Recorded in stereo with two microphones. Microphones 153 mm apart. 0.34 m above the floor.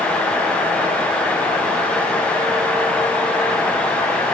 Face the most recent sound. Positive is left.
No sound to turn to.